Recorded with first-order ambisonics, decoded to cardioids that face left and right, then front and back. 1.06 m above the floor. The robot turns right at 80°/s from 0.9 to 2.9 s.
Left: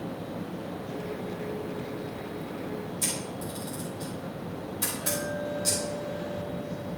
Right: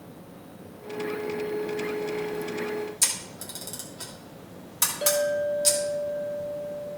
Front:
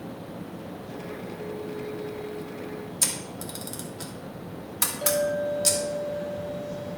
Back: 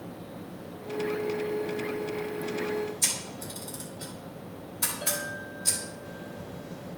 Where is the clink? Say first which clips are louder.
Right 10 dB, front 9 dB; 70° right, 2.5 m.